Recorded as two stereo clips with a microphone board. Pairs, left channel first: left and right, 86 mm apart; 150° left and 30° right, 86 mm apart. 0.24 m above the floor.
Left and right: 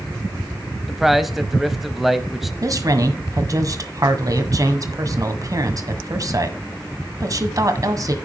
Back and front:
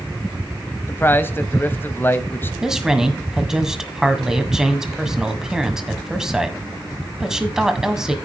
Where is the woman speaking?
110° right, 1.7 m.